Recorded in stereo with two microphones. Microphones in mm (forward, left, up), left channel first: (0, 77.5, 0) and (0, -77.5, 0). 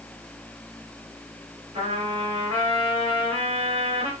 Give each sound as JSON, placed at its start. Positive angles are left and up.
{"t": 1.7, "sound": "a trumpet", "side_deg": -40, "distance_m": 3.0}